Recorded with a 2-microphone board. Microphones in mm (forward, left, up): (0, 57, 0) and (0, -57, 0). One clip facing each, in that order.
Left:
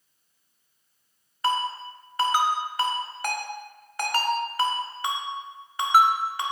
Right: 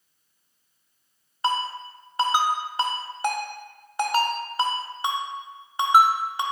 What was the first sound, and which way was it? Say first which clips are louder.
A ringtone: even; 25° right (ahead or behind).